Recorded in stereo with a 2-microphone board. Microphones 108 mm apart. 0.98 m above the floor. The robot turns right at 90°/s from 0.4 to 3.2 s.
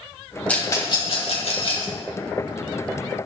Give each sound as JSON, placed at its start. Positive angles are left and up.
{"t": 0.5, "sound": "a rattle", "side_deg": 15, "distance_m": 2.5}